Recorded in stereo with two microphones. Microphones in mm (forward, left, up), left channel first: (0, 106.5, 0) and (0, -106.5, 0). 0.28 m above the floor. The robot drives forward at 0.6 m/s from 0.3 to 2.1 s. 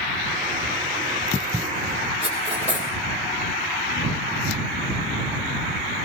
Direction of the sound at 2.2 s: 60° right (ahead or behind).